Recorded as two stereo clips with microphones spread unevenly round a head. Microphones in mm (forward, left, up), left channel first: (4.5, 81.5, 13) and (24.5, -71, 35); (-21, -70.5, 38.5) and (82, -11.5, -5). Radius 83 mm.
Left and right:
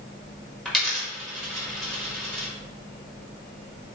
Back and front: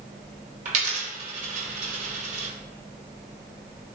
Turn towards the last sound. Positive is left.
turn(degrees=5)